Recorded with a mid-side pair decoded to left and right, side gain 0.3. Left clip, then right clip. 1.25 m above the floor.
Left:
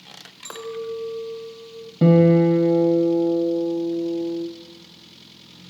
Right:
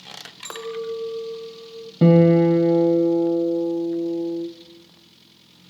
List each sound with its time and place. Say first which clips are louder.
0.5 s a clink: right 1 dB; 40° right, 0.8 m
2.0 s a guitar: right 1 dB; 35° right, 0.9 m